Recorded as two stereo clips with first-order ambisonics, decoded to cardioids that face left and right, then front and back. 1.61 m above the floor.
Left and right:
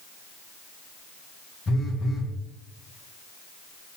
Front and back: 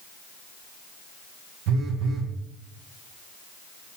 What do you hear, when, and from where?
1.7 s a phone buzzing: 160° left, 1.6 m